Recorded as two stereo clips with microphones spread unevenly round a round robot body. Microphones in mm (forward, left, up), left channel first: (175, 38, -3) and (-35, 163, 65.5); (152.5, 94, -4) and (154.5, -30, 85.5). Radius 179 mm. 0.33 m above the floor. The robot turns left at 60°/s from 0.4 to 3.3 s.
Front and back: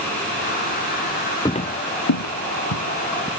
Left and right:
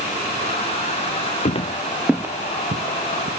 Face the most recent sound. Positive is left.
turn(degrees=-110)